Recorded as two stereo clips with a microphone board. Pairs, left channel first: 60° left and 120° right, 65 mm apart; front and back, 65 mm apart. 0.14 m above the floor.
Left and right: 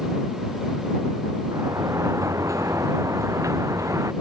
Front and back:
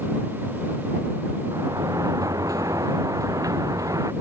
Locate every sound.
1.5 s a sliding door: 155° right